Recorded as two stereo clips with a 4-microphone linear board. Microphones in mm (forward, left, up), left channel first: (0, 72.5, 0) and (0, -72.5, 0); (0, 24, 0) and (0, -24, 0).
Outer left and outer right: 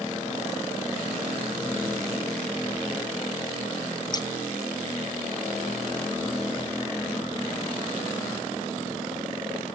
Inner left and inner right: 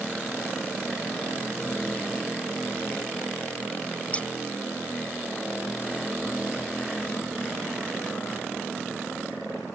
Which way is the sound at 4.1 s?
30° left (ahead or behind).